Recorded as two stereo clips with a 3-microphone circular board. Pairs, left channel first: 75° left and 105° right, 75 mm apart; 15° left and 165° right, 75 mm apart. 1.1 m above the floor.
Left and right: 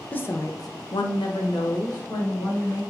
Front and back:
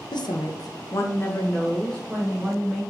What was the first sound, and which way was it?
A woman speaking, 5° left.